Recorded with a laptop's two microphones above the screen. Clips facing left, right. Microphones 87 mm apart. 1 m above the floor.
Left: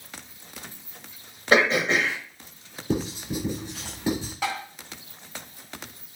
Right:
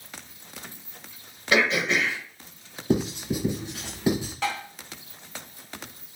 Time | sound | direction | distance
1.5 | throat clearing | 35° left (ahead or behind) | 1.5 m
2.9 | writing | 15° right (ahead or behind) | 3 m
4.4 | tapping | 10° left (ahead or behind) | 2 m